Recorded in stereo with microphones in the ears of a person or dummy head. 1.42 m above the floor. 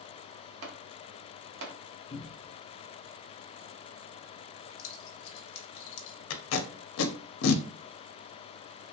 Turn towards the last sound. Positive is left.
turn(degrees=80)